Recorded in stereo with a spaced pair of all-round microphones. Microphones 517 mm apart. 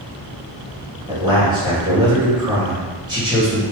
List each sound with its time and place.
1.1 s a man speaking: 10° right (ahead or behind), 1.9 m